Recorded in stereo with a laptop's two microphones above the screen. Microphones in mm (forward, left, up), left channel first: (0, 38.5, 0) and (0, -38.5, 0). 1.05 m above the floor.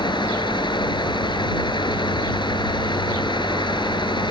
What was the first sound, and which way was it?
A fan, 85° left.